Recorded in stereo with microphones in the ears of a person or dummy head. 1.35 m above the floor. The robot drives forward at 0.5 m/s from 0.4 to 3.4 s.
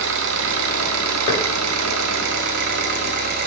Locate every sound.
0.0 s an engine running: 65° right (ahead or behind), 1.3 m; by 3.5 s 45° right (ahead or behind), 1.6 m
1.3 s knocking: 45° left (ahead or behind), 3.5 m